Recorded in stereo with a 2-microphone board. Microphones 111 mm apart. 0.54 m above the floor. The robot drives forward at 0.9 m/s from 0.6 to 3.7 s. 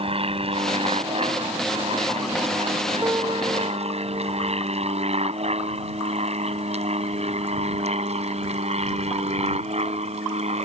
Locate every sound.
0.0 s an aircraft: 60° right (ahead or behind); by 10.7 s 75° right (ahead or behind)
3.0 s a piano: 30° right (ahead or behind); by 4.6 s 40° right (ahead or behind)